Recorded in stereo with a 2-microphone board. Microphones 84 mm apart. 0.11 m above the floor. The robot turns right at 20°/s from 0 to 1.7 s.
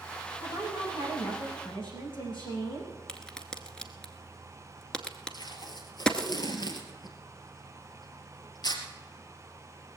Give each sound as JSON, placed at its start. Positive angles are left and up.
{"t": 0.4, "sound": "a woman speaking", "side_deg": 80, "distance_m": 7.5}
{"t": 3.1, "sound": "a crack", "side_deg": 10, "distance_m": 1.0}
{"t": 5.3, "sound": "tape being pulled", "side_deg": 55, "distance_m": 2.5}